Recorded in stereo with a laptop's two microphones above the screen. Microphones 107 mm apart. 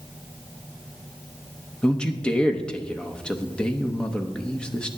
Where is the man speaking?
10° left (ahead or behind), 0.7 m.